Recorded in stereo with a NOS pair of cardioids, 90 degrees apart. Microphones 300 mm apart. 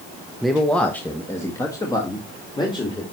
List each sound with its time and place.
0.4 s a man speaking: straight ahead, 0.8 m; by 3.0 s 15° left, 2 m